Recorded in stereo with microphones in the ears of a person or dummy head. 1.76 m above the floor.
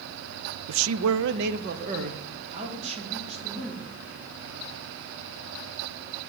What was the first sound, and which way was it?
A man speaking, 60° right (ahead or behind).